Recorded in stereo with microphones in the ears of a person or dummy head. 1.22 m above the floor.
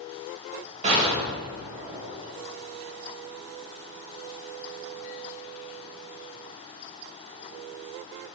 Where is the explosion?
35° right (ahead or behind), 2.5 m.